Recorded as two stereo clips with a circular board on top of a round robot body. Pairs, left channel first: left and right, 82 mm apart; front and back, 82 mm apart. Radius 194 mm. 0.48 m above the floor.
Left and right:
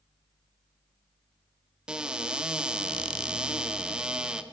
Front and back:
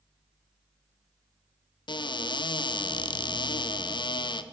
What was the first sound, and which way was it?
A cupboard door, 10° right.